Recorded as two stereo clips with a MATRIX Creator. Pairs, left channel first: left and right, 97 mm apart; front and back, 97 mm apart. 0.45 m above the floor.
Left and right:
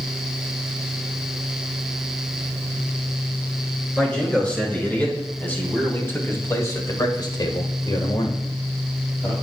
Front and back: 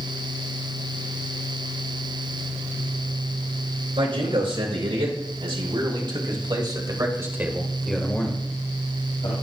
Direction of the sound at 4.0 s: 170° left.